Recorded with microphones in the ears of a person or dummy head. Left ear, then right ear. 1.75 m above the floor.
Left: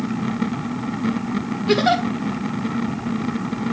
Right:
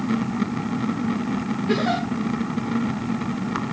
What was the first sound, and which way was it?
A giggle, 30° left (ahead or behind).